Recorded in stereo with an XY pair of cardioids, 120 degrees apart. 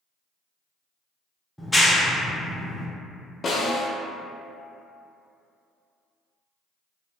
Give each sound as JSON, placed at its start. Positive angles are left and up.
{"t": 1.6, "sound": "a clap", "azimuth_deg": 5, "distance_m": 0.5}
{"t": 3.4, "sound": "a snare drum", "azimuth_deg": 35, "distance_m": 0.5}